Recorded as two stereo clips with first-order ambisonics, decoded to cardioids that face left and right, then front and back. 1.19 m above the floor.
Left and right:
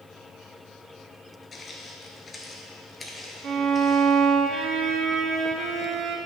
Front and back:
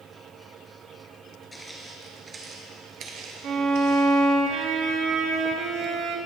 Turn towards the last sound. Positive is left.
turn(degrees=-135)